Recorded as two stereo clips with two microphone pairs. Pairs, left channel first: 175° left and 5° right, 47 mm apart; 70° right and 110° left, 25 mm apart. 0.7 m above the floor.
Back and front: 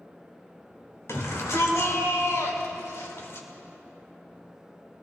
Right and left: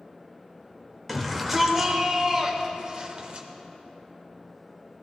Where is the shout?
165° right, 2.5 m; by 3.5 s 145° left, 2.5 m.